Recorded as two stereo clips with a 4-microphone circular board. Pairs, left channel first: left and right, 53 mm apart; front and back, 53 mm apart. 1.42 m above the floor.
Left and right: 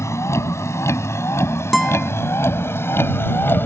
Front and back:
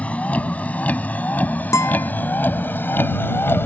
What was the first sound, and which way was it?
A vehicle, 65° left.